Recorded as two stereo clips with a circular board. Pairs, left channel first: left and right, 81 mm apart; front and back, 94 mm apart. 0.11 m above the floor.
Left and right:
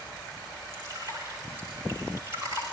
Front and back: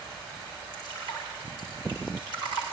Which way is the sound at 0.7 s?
150° right.